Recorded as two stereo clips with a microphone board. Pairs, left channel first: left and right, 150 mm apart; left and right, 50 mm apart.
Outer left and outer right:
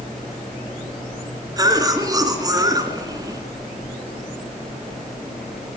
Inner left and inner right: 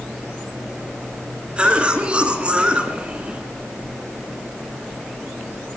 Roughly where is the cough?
Right.